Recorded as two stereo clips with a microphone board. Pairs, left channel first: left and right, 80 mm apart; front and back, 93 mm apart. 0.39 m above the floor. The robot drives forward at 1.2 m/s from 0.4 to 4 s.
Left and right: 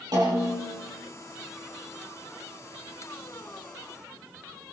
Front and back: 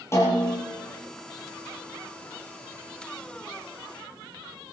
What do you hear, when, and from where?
0.1 s a snare drum: 60° right, 7 m